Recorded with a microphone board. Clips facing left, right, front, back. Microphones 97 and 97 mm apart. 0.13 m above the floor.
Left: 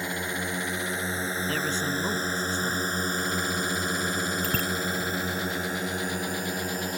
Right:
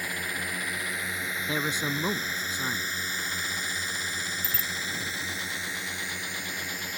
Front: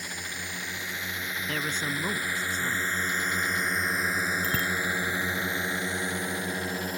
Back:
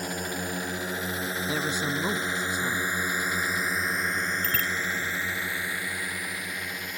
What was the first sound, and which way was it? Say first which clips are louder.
A drone: left 3 dB, back 7 dB; 150° left.